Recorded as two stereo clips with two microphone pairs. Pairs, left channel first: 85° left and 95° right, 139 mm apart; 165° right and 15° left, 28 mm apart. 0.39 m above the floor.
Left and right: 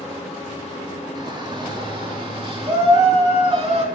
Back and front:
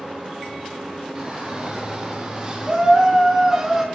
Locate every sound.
1.1 s a shout: 35° right, 6 m; by 3.9 s 45° right, 3.5 m